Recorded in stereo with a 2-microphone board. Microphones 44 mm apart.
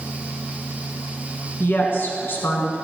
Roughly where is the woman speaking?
Left.